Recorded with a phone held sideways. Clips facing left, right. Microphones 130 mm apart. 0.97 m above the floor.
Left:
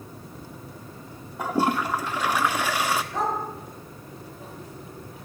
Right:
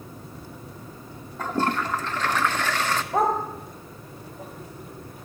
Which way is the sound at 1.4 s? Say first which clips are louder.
Left 2 dB; 10° left (ahead or behind).